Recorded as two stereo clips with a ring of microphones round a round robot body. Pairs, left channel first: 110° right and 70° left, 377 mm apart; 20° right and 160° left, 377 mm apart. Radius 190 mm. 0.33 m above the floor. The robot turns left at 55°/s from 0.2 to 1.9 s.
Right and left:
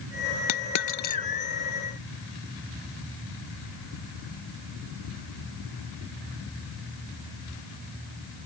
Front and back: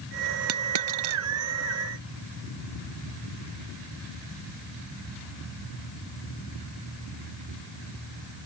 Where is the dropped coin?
150° right; by 1.2 s 175° left.